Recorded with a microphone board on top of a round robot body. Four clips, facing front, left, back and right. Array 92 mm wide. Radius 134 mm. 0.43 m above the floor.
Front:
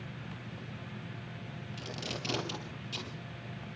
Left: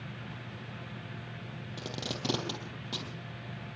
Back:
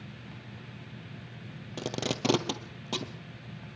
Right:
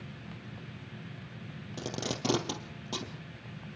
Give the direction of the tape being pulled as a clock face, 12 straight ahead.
6 o'clock.